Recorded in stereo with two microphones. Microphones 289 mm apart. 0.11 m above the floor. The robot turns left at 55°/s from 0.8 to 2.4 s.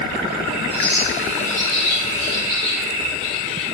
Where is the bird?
50° left (ahead or behind), 7 m; by 3.6 s 35° right (ahead or behind), 7 m.